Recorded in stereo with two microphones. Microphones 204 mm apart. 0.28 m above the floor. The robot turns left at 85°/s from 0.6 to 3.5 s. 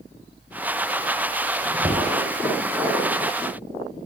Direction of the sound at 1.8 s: 25° right (ahead or behind).